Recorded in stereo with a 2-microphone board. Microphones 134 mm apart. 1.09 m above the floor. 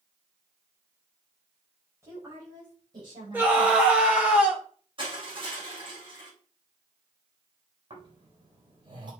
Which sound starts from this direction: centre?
A scream, at 3.3 s.